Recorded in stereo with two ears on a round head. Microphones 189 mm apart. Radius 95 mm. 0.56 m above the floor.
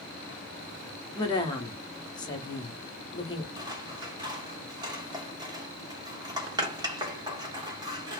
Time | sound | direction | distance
1.1 | a woman speaking | 20° left (ahead or behind) | 0.8 m
3.6 | scissors | 20° right (ahead or behind) | 0.9 m